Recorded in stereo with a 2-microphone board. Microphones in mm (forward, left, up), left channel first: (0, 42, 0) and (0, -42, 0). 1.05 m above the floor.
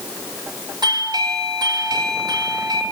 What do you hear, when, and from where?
0.8 s a doorbell: 60° right (ahead or behind), 5 m